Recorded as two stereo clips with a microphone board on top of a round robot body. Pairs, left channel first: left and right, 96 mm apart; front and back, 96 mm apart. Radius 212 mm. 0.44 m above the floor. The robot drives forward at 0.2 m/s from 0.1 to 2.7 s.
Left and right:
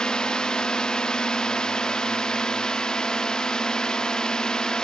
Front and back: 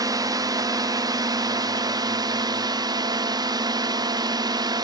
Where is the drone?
170° left.